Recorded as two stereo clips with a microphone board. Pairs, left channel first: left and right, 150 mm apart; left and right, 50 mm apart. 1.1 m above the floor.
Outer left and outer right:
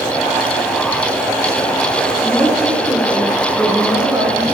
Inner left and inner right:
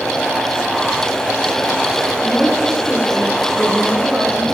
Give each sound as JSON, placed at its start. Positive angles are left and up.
{"t": 2.2, "sound": "a woman speaking", "side_deg": 5, "distance_m": 2.5}